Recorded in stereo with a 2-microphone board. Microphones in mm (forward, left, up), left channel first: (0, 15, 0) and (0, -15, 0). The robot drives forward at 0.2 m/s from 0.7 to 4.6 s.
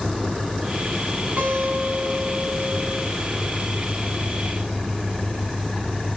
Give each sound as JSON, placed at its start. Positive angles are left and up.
{"t": 1.4, "sound": "a guitar", "side_deg": -60, "distance_m": 1.5}